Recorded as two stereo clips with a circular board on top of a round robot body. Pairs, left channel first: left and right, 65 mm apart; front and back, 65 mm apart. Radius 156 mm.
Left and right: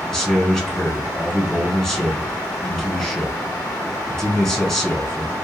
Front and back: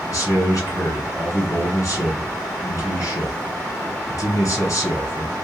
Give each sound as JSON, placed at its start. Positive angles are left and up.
{"t": 0.1, "sound": "a man speaking", "azimuth_deg": 10, "distance_m": 1.8}